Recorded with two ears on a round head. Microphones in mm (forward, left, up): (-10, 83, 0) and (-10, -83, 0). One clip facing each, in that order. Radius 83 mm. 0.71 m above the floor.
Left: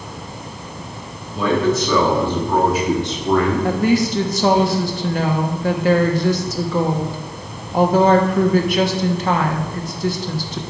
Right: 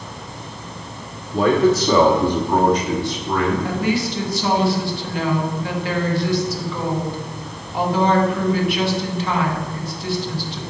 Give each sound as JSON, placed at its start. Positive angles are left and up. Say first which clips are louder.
{"t": 1.3, "sound": "a man speaking", "louder": "right 2 dB", "side_deg": -40, "distance_m": 2.0}
{"t": 3.6, "sound": "a woman speaking", "louder": "left 4 dB", "side_deg": 35, "distance_m": 1.2}